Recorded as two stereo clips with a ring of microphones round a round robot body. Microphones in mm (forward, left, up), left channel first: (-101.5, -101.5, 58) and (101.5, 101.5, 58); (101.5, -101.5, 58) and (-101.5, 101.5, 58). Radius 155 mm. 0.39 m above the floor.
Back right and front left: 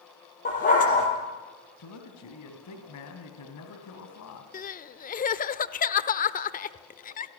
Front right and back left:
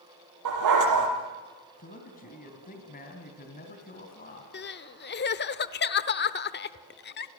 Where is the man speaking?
105° right, 3 m.